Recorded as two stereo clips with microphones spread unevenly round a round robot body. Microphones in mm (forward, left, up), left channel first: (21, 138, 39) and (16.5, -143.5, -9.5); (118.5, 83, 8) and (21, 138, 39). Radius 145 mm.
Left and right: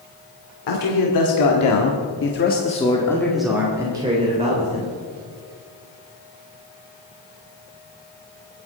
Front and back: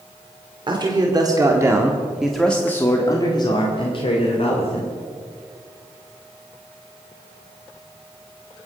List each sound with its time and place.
0.7 s a man speaking: 100° left, 2.5 m; by 5.0 s 30° right, 3 m